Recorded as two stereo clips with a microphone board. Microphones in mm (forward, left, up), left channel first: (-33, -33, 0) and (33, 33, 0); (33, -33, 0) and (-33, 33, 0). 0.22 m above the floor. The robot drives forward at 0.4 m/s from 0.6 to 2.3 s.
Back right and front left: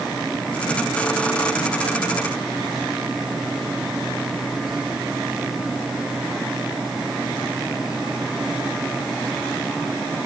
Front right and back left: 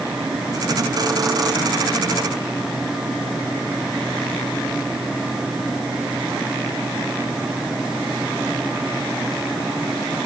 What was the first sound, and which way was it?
Only background noise.